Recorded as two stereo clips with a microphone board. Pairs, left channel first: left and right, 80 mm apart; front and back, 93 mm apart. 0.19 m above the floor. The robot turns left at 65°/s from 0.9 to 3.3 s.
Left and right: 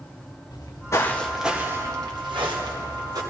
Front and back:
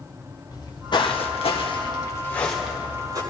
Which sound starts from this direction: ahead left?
Footsteps, at 0.5 s.